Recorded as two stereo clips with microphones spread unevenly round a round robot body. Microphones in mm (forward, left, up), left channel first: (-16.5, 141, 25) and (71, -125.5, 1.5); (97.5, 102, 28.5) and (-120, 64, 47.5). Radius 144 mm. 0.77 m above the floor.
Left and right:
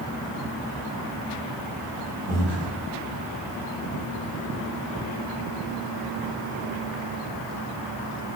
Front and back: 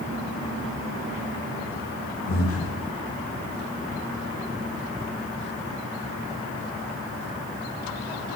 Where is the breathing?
25° right, 4 m.